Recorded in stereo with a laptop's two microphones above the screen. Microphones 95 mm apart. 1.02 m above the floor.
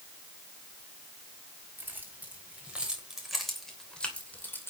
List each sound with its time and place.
1.8 s keys jangling: 20° right (ahead or behind), 4 m; by 4.7 s 25° left (ahead or behind), 2.5 m